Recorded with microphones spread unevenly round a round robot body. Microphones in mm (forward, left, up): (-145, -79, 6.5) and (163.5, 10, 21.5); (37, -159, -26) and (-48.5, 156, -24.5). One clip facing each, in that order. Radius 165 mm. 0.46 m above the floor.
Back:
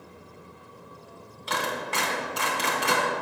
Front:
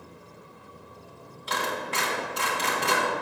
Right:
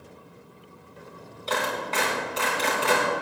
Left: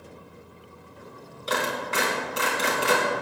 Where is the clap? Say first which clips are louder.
Even, even; 175° left, 3.5 m.